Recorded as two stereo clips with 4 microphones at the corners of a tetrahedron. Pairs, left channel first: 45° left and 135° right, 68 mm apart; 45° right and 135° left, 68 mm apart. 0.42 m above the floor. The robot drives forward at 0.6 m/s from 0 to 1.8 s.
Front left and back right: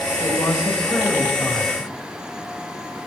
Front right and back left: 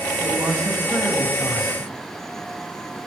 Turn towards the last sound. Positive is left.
turn(degrees=110)